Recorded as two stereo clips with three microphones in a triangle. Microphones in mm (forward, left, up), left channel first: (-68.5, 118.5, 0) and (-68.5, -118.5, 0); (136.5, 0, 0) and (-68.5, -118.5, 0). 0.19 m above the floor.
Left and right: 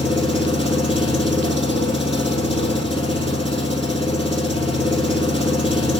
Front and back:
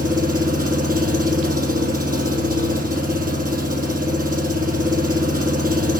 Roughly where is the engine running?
Behind.